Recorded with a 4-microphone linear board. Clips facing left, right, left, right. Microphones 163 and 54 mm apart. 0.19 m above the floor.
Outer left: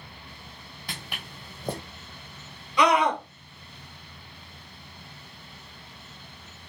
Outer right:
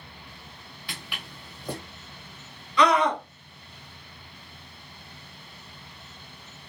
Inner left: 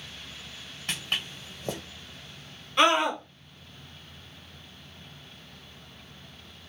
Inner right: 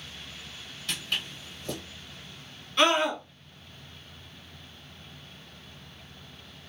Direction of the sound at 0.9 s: 45° left (ahead or behind).